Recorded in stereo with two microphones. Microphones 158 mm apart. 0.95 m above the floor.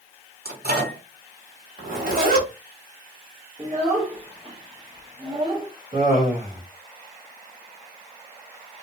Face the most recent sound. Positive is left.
turn(degrees=-65)  # may be behind; listen again after turning